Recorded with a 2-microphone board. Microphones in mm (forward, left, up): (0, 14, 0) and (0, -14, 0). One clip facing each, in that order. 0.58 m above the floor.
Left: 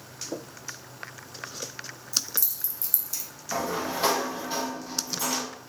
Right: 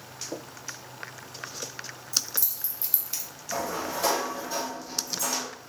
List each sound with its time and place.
2.1 s keys jangling: 10° left (ahead or behind), 1.0 m; by 3.2 s 35° right (ahead or behind), 0.8 m
3.5 s a sliding door: 30° left (ahead or behind), 0.8 m